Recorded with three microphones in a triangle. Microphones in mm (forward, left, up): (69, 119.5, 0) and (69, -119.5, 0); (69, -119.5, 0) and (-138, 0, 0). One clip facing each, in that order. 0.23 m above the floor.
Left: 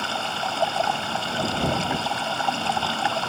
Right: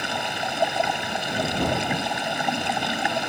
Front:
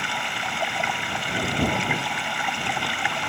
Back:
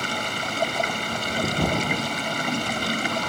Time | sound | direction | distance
0.0 | running water | 160° right | ?